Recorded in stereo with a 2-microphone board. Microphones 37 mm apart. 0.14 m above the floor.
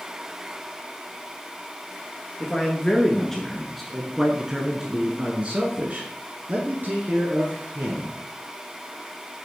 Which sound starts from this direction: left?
A man speaking, at 2.4 s.